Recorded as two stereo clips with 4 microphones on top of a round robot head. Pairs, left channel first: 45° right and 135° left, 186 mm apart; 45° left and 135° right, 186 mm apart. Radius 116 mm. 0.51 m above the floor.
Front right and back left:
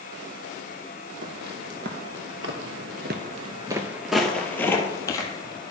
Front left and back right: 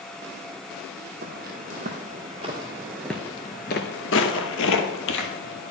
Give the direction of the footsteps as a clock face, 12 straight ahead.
6 o'clock.